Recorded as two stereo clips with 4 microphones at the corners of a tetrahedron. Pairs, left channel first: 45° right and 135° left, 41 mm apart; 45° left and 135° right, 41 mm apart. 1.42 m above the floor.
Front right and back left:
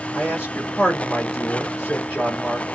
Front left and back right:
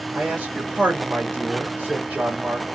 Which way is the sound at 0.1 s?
80° right.